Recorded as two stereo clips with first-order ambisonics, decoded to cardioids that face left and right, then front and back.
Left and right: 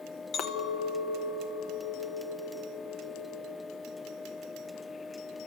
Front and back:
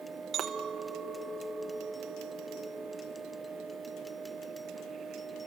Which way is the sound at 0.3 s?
130° left.